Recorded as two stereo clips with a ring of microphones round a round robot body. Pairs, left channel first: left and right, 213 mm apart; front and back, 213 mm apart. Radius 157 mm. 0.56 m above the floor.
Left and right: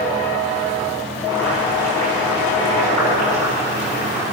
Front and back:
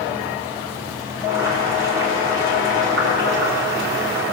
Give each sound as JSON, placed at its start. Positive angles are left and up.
{"t": 1.2, "sound": "boiling", "azimuth_deg": 170, "distance_m": 5.5}